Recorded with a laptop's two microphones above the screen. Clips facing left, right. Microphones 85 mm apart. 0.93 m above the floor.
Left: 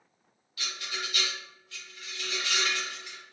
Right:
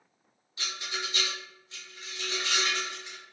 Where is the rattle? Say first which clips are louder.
Right 1 dB; 25° right (ahead or behind), 0.7 m.